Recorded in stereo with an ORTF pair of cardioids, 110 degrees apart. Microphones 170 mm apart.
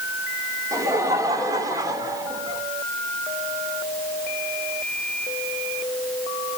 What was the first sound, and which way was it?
Laughter, 20° right.